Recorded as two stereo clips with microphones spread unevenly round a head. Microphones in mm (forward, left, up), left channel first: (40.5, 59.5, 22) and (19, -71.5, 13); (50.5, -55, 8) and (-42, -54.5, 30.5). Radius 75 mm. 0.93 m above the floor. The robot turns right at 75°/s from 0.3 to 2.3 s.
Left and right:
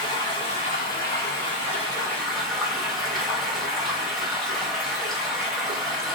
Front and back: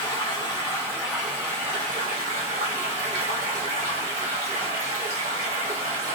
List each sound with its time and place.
0.0 s running water: 25° left, 1.1 m; by 6.2 s 175° left, 1.1 m